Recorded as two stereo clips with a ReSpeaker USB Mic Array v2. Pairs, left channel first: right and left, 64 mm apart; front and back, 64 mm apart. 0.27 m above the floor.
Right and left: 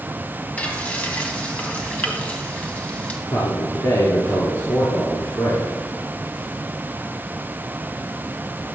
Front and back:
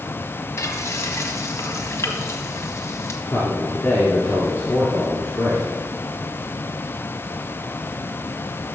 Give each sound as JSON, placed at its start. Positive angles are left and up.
{"t": 0.6, "sound": "frying", "azimuth_deg": -30, "distance_m": 1.7}
{"t": 3.3, "sound": "a man speaking", "azimuth_deg": -65, "distance_m": 4.0}